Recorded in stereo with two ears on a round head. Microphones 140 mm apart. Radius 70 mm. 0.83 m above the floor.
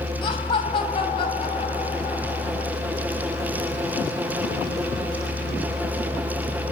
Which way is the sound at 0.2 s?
35° left (ahead or behind).